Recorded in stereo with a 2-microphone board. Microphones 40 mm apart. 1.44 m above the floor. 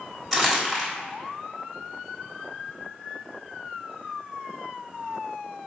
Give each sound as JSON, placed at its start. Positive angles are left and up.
{"t": 0.3, "sound": "crumpling", "side_deg": 5, "distance_m": 1.2}